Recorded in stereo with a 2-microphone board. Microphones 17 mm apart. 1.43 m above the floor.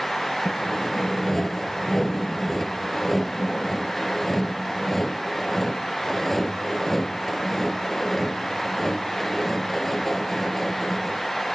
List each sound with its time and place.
0.5 s sawing: 20° left (ahead or behind)